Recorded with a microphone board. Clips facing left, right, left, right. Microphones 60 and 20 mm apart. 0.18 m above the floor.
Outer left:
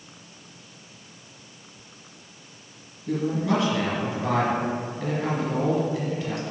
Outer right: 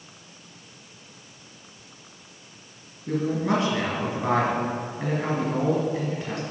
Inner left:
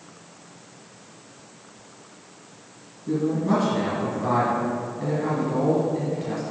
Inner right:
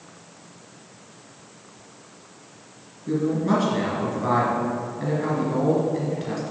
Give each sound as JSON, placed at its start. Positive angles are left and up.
{"t": 3.1, "sound": "a man speaking", "side_deg": -30, "distance_m": 2.0}